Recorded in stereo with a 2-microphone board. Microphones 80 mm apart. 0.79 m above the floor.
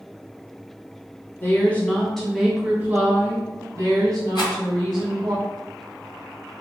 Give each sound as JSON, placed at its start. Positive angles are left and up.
{"t": 1.4, "sound": "a woman speaking", "side_deg": 30, "distance_m": 1.0}
{"t": 4.3, "sound": "a rattle", "side_deg": 75, "distance_m": 1.4}